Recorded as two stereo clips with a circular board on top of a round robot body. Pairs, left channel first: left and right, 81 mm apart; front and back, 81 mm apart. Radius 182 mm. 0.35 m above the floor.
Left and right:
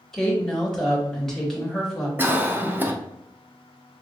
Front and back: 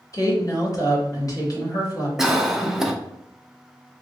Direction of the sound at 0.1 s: 5° left.